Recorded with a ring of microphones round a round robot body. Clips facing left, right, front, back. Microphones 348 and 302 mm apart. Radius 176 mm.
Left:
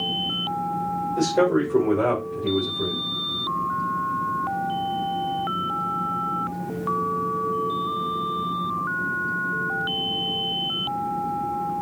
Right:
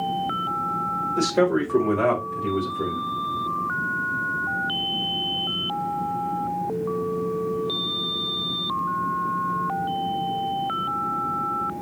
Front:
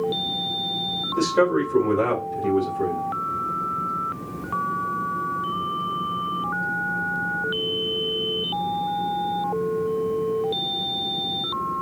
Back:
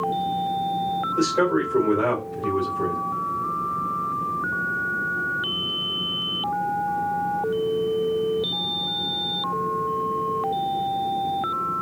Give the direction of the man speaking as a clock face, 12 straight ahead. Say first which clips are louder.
Left 1 dB, front 1 dB; 1 o'clock.